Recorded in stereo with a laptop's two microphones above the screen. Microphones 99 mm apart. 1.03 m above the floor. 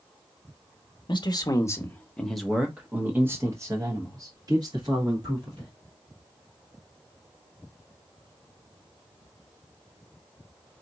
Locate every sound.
1.1 s a man speaking: 50° left (ahead or behind), 0.8 m; by 5.7 s 45° right (ahead or behind), 2.5 m